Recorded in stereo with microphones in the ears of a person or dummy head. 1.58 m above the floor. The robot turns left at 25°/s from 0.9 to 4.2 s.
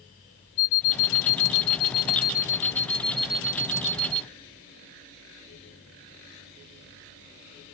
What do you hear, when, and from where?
0.6 s an alarm clock: 55° left; by 4.2 s 25° right